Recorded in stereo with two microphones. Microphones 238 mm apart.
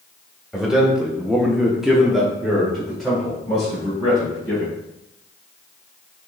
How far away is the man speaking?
About 1.2 m.